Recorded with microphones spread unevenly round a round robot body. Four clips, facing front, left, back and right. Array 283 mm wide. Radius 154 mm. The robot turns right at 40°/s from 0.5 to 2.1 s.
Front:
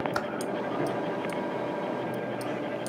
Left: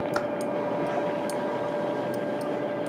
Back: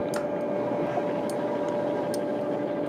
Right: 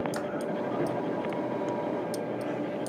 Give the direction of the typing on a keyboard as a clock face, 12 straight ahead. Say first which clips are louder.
Left 5 dB, back 2 dB; 10 o'clock.